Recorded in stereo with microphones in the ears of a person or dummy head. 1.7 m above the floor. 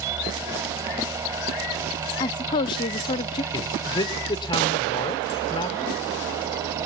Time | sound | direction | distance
0.0 | a fan | 20° right (ahead or behind) | 2.0 m
2.2 | a woman speaking | 20° left (ahead or behind) | 0.5 m
3.5 | a man speaking | 25° left (ahead or behind) | 1.4 m